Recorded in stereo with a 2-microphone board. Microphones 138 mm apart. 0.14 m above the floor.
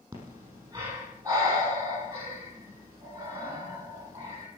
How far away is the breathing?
About 5.5 m.